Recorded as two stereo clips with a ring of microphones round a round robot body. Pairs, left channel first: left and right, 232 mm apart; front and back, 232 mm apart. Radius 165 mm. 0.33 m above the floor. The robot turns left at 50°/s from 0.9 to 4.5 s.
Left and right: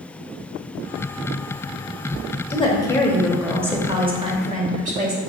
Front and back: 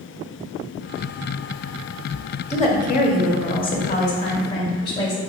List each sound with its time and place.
2.5 s a woman speaking: 40° left, 1.0 m; by 5.2 s 60° right, 1.0 m